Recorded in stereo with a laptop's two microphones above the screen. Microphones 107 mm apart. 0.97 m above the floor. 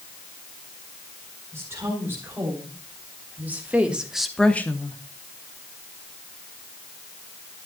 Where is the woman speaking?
20° right (ahead or behind), 4.5 m; by 5.0 s 30° left (ahead or behind), 0.9 m.